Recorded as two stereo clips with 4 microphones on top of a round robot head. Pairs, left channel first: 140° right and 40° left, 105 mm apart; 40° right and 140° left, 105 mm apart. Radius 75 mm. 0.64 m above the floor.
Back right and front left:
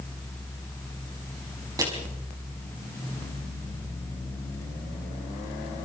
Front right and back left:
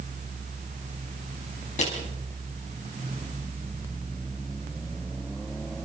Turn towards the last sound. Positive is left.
turn(degrees=-20)